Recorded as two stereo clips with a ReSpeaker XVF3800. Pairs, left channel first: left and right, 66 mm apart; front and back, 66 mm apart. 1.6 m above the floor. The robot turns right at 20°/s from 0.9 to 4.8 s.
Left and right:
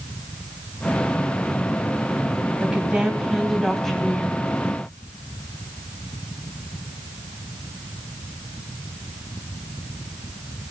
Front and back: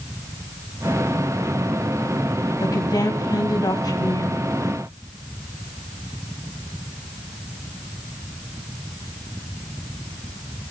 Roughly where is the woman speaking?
Ahead right.